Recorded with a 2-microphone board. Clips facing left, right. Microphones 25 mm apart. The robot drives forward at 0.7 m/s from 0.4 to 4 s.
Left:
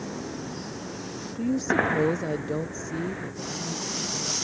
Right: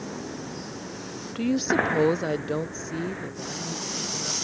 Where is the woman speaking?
70° right (ahead or behind); by 4.4 s 20° right (ahead or behind).